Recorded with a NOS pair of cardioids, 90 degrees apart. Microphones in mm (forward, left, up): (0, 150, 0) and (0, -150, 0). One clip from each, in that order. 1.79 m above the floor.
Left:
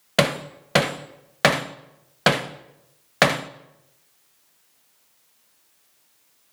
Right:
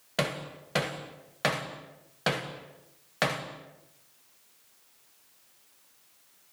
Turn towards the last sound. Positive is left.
turn(degrees=60)